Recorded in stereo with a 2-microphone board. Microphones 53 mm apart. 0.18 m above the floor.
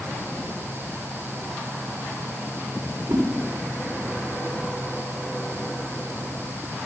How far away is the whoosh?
About 9 m.